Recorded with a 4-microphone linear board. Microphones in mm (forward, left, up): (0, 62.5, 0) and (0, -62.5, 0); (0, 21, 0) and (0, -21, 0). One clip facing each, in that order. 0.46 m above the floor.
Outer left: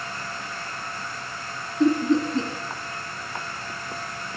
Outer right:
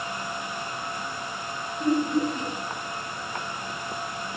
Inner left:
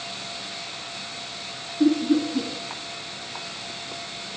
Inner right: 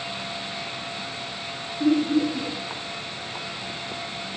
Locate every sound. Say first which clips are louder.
1.8 s laughter: outer left 4 dB, inner left 1 dB; 80° left, 4 m